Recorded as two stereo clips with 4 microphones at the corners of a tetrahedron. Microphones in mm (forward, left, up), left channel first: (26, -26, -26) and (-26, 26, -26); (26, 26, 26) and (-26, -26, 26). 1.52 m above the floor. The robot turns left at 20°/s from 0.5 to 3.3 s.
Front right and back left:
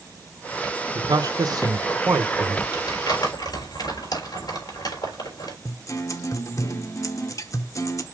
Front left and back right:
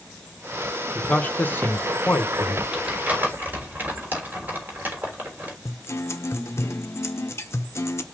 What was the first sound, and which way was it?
A man speaking, 120° left.